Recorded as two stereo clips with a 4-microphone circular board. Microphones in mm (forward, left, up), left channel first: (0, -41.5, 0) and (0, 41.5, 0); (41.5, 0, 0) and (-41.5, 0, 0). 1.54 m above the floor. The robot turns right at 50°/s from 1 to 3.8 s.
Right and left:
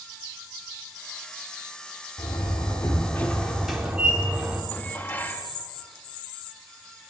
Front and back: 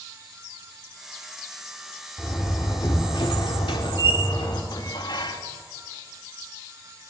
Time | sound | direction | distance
2.2 | a door slam | 70° right | 3.5 m
4.7 | dishes clattering | 20° right | 1.8 m